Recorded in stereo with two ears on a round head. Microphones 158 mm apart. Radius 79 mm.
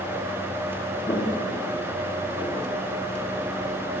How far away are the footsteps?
About 5.5 m.